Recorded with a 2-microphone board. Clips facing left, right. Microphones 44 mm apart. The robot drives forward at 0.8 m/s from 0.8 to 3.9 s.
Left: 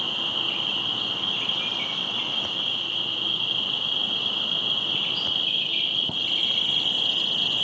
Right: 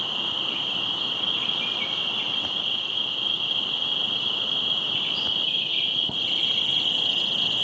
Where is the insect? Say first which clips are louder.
Left 1 dB; 45° left (ahead or behind), 1.3 m; by 7.7 s 30° left (ahead or behind), 1.9 m.